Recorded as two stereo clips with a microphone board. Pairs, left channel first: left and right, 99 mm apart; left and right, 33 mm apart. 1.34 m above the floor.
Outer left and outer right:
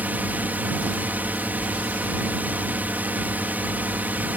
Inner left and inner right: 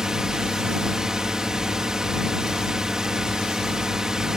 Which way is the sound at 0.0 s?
20° right (ahead or behind).